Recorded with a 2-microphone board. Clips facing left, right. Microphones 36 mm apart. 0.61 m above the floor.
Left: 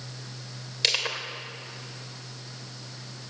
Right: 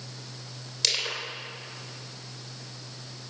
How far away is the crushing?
About 3 m.